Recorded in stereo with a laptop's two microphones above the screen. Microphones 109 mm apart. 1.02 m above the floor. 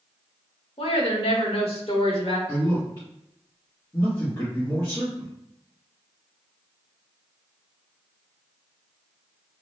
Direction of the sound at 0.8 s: 60° left (ahead or behind).